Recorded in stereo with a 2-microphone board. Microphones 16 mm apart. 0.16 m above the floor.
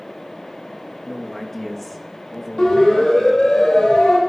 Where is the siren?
70° left (ahead or behind), 8 m.